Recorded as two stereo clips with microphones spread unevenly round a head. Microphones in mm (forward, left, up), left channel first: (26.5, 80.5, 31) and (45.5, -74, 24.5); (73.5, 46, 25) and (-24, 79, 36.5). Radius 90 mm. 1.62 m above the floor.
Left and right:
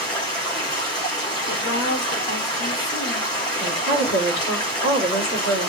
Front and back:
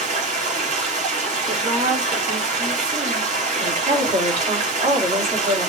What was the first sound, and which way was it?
Running water, 165° left.